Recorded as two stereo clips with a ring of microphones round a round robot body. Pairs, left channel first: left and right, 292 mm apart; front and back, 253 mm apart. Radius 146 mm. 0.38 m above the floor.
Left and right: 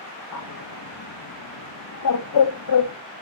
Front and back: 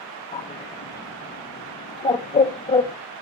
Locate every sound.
0.3 s a bird: 65° left, 1.7 m